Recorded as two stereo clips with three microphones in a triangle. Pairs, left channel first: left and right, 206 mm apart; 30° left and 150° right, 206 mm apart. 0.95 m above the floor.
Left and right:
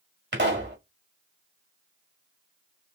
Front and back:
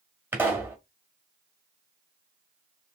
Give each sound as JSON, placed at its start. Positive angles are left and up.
{"t": 0.3, "sound": "a pop", "azimuth_deg": -70, "distance_m": 1.3}